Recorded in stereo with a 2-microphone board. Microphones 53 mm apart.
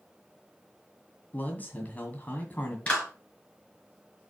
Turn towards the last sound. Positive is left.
turn(degrees=25)  # may be behind; listen again after turning